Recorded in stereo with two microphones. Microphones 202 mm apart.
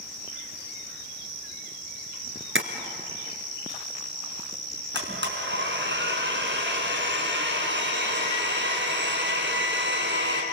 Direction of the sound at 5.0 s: 65° right (ahead or behind).